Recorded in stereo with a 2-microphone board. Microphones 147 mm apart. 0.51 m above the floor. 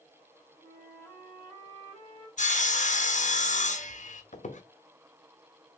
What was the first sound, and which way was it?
A flute, 25° left (ahead or behind).